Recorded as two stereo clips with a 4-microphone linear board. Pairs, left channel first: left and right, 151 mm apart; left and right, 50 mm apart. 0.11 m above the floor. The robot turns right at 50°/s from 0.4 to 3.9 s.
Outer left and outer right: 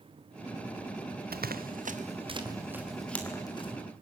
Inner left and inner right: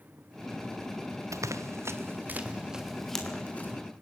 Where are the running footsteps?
85° right, 0.7 m; by 3.7 s 40° left (ahead or behind), 4.5 m.